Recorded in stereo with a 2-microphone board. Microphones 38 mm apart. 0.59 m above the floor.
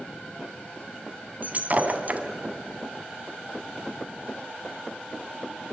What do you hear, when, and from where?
1.4 s breaking glass: 40° right (ahead or behind), 1.9 m